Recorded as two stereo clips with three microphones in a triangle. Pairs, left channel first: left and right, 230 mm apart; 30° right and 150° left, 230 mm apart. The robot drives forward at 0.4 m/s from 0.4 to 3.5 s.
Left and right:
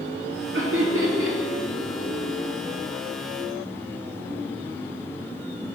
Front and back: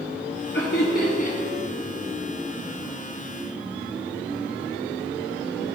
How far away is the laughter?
About 1.0 m.